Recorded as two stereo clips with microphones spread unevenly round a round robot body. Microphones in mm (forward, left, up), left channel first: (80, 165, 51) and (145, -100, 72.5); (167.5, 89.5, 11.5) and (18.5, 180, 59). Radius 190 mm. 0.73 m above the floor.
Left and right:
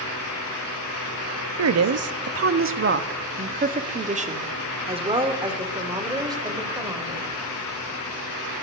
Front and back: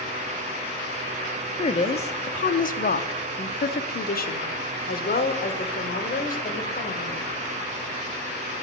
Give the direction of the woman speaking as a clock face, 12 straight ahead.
3 o'clock.